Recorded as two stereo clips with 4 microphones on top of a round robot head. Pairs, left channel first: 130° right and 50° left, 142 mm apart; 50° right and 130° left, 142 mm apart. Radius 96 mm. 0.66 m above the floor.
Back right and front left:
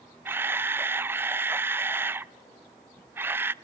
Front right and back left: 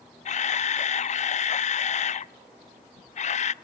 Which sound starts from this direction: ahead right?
A camera shutter, at 0.2 s.